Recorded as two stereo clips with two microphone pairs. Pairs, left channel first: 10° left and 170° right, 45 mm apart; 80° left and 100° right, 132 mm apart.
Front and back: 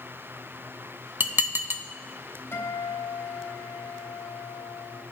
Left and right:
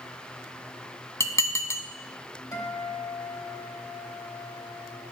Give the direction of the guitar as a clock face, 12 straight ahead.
11 o'clock.